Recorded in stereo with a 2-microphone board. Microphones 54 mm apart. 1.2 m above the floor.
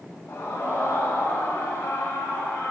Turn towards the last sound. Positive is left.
turn(degrees=65)  # may be behind; listen again after turning